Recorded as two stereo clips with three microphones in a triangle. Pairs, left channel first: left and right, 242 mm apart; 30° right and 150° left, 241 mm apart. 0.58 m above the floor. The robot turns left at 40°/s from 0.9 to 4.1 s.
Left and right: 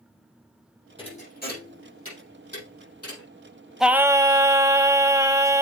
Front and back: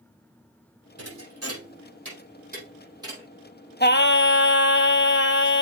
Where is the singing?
Straight ahead, 0.5 m; by 5.6 s 15° right, 0.5 m.